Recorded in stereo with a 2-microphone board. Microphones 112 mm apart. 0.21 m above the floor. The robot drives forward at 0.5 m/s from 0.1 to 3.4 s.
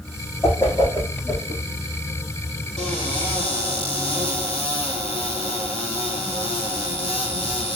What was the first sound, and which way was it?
A whoosh, 20° left (ahead or behind).